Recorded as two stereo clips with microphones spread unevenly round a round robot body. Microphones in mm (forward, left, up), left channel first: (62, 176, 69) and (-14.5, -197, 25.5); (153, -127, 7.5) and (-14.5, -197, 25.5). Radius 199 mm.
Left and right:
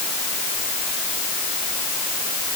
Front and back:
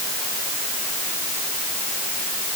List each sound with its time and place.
Only background noise.